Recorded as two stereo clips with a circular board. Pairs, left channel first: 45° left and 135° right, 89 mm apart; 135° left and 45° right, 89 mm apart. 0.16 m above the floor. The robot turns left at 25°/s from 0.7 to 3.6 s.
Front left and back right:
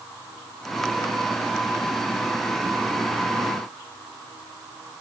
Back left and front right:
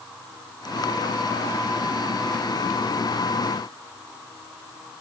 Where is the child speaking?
I don't hear a child speaking.